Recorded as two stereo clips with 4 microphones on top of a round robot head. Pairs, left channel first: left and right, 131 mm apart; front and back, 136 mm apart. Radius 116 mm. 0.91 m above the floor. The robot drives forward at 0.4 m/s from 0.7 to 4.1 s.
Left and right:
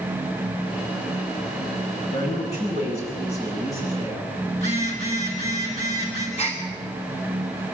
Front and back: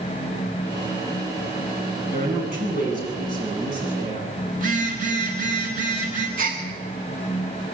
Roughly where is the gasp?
Behind.